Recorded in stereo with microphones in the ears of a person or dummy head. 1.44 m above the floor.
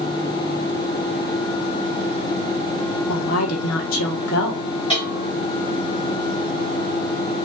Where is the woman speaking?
75° left (ahead or behind), 1.3 m.